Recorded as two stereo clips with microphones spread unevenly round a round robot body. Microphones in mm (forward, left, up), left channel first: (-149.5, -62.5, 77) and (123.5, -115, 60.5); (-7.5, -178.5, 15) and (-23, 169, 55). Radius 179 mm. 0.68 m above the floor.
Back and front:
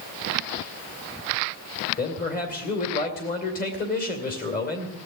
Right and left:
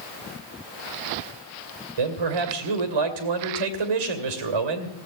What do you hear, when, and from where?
2.0 s a man speaking: 105° left, 2.5 m